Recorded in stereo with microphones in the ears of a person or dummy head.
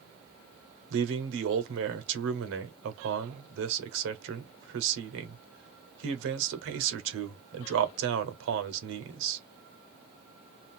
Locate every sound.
0.9 s a man speaking: 75° right (ahead or behind), 1.0 m